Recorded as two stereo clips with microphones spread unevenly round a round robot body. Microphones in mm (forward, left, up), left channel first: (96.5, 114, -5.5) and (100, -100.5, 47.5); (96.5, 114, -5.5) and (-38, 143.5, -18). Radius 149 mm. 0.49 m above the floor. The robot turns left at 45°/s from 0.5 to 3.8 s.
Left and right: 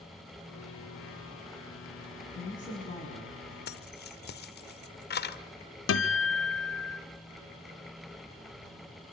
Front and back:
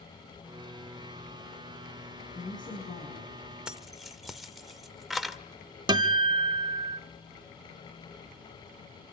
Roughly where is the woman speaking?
Ahead left.